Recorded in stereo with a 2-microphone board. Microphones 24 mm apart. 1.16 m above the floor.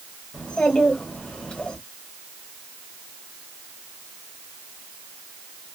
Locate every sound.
0.3 s a child speaking: 45° left (ahead or behind), 1.5 m